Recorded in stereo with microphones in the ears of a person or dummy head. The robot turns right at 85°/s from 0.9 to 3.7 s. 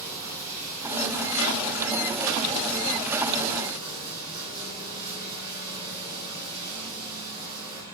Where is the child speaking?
No child speaking in this recording.